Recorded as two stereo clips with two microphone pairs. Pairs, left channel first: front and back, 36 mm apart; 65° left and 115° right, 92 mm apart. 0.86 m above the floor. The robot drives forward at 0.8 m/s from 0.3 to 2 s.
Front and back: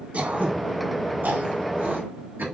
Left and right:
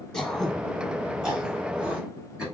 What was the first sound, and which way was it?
Throat clearing, 150° left.